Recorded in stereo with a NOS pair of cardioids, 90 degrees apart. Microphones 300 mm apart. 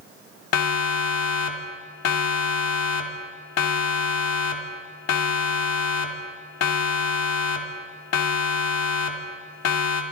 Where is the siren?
60° left, 3 m.